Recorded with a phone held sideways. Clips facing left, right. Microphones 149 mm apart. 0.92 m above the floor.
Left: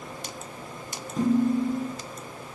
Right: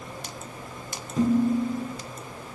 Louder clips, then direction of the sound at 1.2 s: Even; centre (ahead or behind).